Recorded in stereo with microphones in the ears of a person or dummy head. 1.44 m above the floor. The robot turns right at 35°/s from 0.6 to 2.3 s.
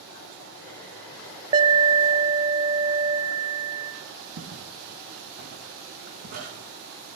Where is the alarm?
25° right (ahead or behind), 0.9 m; by 3.9 s 15° right (ahead or behind), 0.9 m.